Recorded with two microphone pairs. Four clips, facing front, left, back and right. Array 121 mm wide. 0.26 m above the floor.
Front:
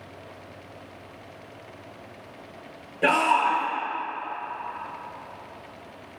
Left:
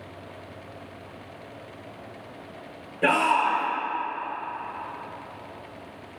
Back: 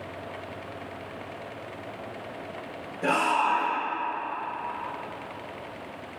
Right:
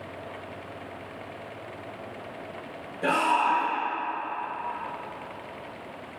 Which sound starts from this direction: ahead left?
A shout, at 3.0 s.